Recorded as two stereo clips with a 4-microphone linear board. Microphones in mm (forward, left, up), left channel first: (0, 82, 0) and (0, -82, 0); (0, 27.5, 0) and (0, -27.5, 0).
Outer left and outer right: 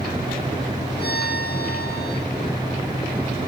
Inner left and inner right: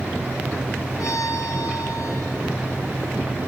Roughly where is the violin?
Left.